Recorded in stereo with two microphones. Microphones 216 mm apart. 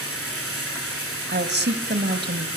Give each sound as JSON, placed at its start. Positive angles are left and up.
{"t": 0.0, "sound": "running water", "side_deg": 75, "distance_m": 6.5}
{"t": 1.3, "sound": "a woman speaking", "side_deg": -50, "distance_m": 2.0}